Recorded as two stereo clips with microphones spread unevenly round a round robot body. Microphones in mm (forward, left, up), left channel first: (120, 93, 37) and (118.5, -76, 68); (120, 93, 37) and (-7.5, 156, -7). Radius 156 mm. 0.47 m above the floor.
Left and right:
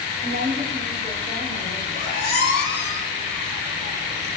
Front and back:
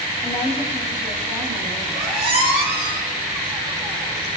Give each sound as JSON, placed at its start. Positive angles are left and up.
{"t": 0.2, "sound": "a woman speaking", "azimuth_deg": -120, "distance_m": 3.5}
{"t": 1.9, "sound": "a squeak", "azimuth_deg": -155, "distance_m": 6.0}